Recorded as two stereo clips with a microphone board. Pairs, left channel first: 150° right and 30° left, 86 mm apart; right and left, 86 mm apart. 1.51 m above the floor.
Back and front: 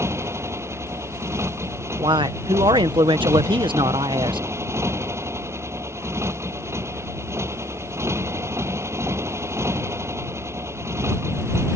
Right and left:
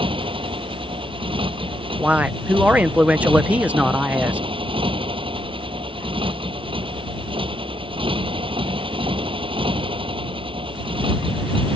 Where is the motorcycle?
90° left.